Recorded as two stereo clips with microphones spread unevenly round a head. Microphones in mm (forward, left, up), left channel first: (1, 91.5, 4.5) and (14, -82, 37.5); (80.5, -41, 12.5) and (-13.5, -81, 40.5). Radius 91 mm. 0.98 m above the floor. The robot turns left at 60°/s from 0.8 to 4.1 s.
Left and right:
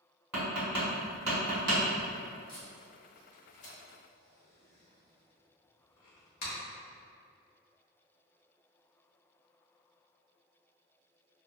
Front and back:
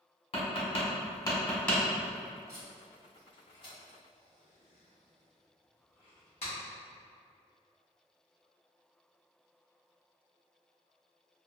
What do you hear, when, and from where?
0.3 s tapping: 5° right, 1.3 m; by 1.8 s 65° right, 1.3 m
2.5 s tape being pulled: 160° left, 0.9 m; by 6.5 s 65° left, 0.9 m